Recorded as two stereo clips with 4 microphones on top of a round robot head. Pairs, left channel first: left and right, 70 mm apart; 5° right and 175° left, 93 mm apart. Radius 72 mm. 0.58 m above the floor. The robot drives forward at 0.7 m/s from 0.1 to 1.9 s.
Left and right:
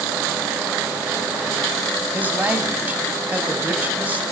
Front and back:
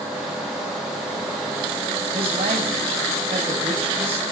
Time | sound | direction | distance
2.1 | a man speaking | 155° right | 4 m